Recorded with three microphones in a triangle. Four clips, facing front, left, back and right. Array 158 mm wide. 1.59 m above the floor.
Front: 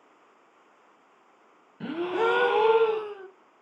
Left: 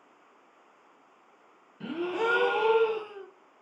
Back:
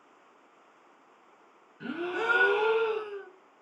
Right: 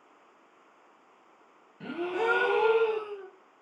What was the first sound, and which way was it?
A gasp, 10° left.